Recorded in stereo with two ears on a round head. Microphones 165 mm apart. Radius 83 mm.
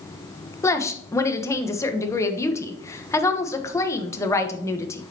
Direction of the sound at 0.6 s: 15° left (ahead or behind).